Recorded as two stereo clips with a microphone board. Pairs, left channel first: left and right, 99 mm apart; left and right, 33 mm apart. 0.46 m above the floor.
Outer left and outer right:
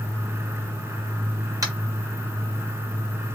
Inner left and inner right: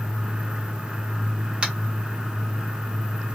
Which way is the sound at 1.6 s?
35° right (ahead or behind).